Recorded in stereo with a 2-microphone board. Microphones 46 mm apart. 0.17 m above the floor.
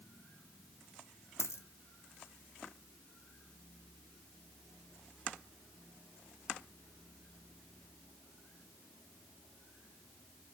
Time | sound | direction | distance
1.4 | a dropped coin | 80° left | 0.6 m